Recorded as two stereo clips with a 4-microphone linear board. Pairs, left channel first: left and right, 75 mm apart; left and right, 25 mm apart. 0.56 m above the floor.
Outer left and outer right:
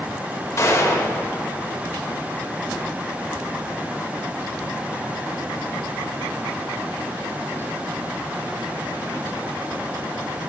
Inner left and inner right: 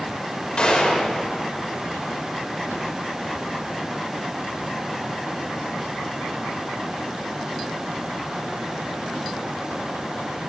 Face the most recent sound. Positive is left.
turn(degrees=45)  # may be behind; listen again after turning